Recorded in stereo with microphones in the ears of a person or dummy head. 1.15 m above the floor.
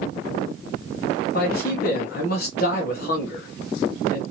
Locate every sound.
1.3 s a man speaking: 50° left (ahead or behind), 0.9 m